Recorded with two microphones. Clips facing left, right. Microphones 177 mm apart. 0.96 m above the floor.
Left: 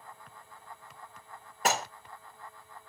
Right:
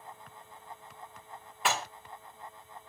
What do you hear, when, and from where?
1.6 s dishes clattering: 45° left (ahead or behind), 1.0 m